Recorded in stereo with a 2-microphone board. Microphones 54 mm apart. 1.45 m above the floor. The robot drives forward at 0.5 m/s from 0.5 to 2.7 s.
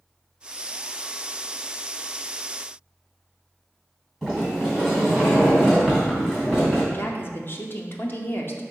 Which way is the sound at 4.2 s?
Centre (ahead or behind).